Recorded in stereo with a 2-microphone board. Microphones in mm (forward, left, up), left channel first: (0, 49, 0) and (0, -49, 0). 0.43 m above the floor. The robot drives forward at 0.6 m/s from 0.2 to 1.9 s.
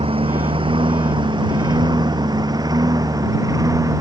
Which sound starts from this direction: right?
A lawn mower, at 0.0 s.